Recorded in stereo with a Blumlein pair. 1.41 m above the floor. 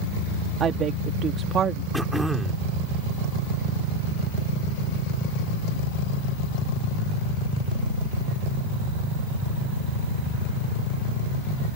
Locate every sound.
0.6 s a woman speaking: 25° right
1.9 s throat clearing: 5° right